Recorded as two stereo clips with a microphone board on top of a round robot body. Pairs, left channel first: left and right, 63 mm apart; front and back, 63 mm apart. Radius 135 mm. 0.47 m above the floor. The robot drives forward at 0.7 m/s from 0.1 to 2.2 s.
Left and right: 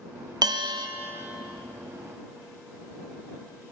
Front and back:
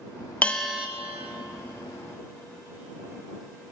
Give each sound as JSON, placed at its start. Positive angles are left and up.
{"t": 0.4, "sound": "a bell", "azimuth_deg": -70, "distance_m": 0.6}